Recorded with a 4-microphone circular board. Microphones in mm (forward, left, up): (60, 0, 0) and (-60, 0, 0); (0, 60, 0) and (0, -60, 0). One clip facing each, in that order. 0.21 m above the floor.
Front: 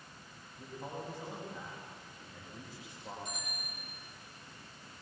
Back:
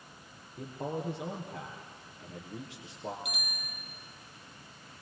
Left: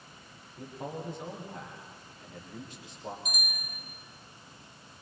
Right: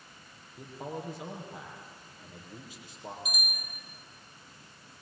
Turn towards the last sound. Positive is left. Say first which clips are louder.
# back 2 dB, even
turn(degrees=-175)